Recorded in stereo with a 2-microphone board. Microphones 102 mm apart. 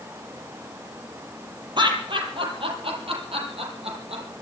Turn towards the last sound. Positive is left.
turn(degrees=-70)  # may be behind; listen again after turning